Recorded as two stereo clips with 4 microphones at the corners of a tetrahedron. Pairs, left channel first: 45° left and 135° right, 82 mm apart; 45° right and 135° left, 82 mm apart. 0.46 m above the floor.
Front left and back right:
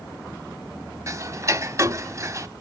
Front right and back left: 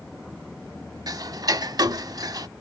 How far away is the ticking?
About 0.5 m.